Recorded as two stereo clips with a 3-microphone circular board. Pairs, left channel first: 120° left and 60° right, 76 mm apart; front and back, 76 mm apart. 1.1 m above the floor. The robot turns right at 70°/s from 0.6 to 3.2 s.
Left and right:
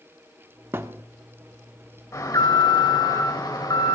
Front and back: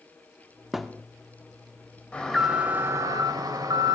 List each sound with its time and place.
0.7 s a thud: 95° right, 0.8 m; by 1.0 s 75° right, 0.8 m
2.1 s an alarm: 75° left, 3 m; by 4.0 s 150° left, 3 m